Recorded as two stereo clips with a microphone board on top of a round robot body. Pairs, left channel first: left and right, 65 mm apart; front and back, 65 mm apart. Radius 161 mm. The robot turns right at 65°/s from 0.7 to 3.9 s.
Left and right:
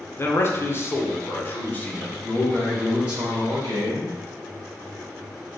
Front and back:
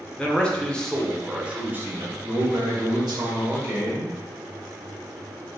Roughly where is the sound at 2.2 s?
Behind left.